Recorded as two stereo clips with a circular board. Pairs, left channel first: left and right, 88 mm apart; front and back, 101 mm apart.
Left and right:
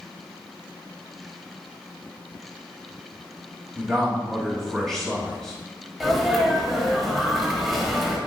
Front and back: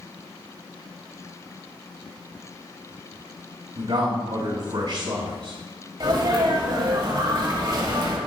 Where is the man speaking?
175° left, 1.9 m.